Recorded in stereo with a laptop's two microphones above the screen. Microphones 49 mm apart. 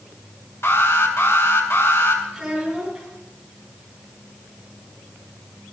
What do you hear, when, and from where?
0.6 s an alarm: 60° left (ahead or behind), 3 m
2.3 s a child speaking: 5° right (ahead or behind), 7 m